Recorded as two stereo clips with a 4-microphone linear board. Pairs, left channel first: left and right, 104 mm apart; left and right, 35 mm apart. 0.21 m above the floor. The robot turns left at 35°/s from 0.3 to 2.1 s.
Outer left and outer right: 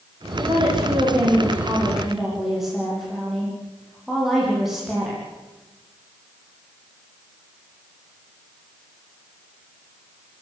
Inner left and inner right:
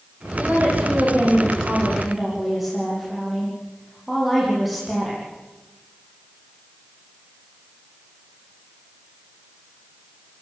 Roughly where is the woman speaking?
Behind right.